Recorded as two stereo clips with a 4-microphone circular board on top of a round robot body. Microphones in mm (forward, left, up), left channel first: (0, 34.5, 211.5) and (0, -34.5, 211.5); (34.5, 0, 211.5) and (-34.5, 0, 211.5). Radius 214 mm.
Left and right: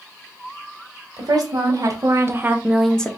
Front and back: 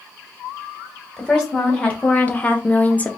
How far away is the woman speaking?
About 2 m.